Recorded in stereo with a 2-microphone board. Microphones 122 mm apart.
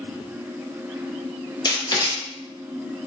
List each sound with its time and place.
1.6 s writing: 35° left (ahead or behind), 0.7 m